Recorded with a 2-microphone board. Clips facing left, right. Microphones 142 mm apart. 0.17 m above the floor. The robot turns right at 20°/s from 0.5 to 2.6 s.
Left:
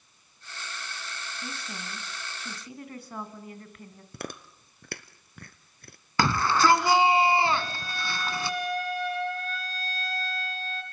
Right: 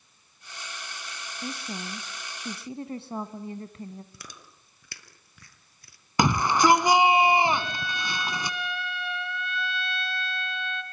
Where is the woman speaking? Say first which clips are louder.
Right 7 dB; 25° right (ahead or behind), 1.2 m; by 4.0 s 30° right (ahead or behind), 1.2 m.